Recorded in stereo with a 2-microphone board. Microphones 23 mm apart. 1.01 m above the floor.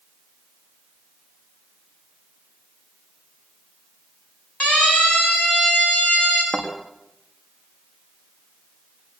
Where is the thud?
60° left (ahead or behind), 6 m.